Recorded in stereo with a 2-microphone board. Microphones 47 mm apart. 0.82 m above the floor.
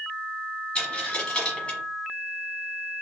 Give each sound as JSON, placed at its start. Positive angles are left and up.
{"t": 0.8, "sound": "a dropped coin", "side_deg": 25, "distance_m": 1.2}